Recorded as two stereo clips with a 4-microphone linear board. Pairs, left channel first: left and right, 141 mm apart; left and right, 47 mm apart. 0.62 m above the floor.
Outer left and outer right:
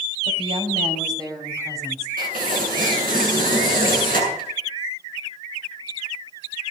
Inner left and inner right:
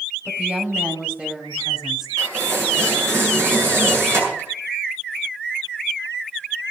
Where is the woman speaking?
45° right (ahead or behind), 3.5 m; by 2.1 s 15° right (ahead or behind), 4 m.